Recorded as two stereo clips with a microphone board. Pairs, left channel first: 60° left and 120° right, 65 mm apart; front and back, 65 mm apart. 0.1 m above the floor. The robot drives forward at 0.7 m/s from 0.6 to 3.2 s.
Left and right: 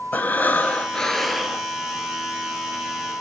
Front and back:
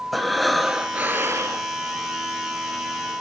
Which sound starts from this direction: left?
Breathing, at 0.1 s.